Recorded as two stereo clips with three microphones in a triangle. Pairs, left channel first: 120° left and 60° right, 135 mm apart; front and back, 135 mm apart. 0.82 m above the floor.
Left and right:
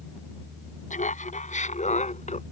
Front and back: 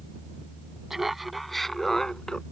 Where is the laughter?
90° left; by 2.4 s 85° left.